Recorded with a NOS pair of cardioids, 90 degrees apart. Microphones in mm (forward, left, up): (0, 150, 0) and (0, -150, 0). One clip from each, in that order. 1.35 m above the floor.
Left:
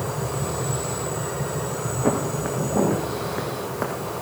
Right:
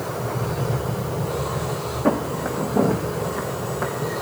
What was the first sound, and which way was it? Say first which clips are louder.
Footsteps: right 2 dB; 10° right.